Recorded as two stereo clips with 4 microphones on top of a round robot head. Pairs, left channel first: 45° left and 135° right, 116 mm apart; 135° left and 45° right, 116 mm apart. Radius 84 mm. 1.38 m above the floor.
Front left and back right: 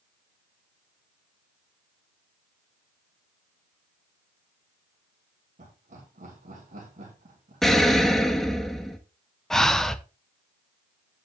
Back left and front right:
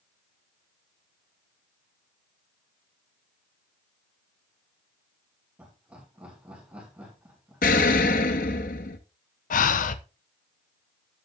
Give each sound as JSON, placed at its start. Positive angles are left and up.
{"t": 5.6, "sound": "laughter", "azimuth_deg": -125, "distance_m": 4.0}
{"t": 7.6, "sound": "an explosion", "azimuth_deg": 130, "distance_m": 0.9}
{"t": 9.5, "sound": "breathing", "azimuth_deg": 130, "distance_m": 0.8}